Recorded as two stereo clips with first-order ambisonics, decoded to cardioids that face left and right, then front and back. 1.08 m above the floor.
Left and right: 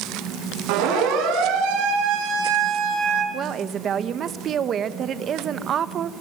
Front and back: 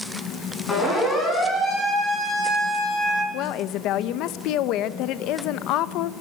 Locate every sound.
0.7 s a siren: 75° right, 10 m; by 3.2 s 85° right, 10 m
3.3 s a woman speaking: 30° right, 1.0 m